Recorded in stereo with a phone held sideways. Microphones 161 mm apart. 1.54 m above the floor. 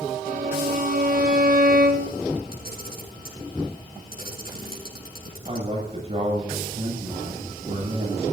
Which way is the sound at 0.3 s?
70° right (ahead or behind).